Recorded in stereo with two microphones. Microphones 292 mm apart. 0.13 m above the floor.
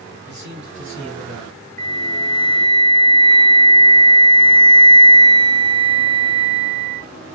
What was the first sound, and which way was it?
A man speaking, 35° right (ahead or behind).